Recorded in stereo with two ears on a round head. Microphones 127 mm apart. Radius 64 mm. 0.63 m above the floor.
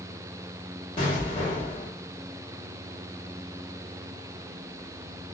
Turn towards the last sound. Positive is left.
turn(degrees=35)  # may be behind; listen again after turning